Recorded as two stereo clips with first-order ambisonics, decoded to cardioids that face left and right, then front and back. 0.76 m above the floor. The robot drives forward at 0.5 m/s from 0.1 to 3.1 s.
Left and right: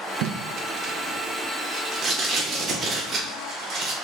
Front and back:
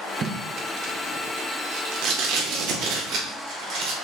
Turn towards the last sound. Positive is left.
turn(degrees=-165)